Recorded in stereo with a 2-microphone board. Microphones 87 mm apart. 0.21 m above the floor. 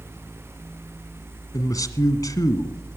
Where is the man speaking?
45° left (ahead or behind), 1.5 m.